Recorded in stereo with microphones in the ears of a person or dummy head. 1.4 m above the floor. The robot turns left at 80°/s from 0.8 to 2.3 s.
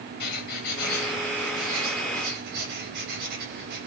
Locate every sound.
0.2 s writing: 55° left, 8.5 m; by 3.9 s 65° right, 8.5 m